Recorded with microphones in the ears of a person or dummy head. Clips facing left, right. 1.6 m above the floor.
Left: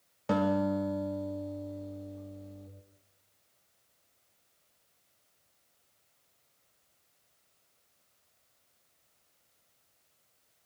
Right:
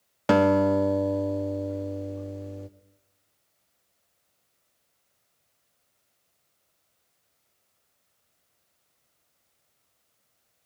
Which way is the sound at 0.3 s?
75° right (ahead or behind).